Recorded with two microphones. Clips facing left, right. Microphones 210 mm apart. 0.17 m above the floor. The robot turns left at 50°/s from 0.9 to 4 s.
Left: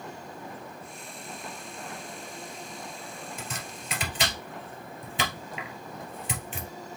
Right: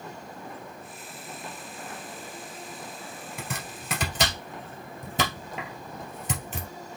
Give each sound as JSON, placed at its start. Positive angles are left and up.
{"t": 3.4, "sound": "chopping", "side_deg": -65, "distance_m": 1.9}